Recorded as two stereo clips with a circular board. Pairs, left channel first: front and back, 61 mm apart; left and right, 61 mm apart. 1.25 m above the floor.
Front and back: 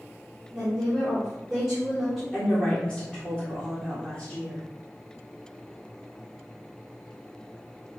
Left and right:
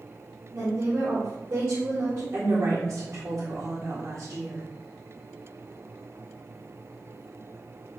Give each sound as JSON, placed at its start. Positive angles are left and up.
{"t": 0.5, "sound": "a woman speaking", "azimuth_deg": -105, "distance_m": 3.5}
{"t": 2.3, "sound": "a woman speaking", "azimuth_deg": -90, "distance_m": 2.5}